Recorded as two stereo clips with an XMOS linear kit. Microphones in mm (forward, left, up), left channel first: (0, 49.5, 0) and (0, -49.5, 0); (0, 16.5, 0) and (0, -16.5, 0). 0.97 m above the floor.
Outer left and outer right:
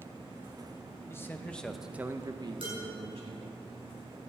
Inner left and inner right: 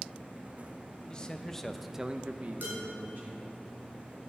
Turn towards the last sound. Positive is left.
turn(degrees=-65)  # may be behind; listen again after turning